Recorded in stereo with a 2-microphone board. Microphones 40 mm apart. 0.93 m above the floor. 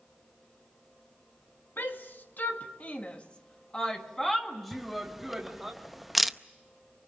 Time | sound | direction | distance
1.8 | a shout | 60° left (ahead or behind) | 2.0 m
4.7 | a camera shutter | 5° right (ahead or behind) | 0.6 m